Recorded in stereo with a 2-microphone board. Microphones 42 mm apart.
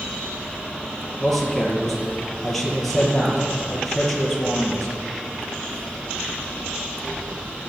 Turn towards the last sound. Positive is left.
turn(degrees=0)  # may be behind; listen again after turning